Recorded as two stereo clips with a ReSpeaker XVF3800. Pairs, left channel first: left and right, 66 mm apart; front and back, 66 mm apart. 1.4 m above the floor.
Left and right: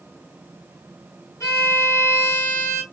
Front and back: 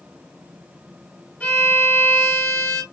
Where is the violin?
65° left, 2.0 m.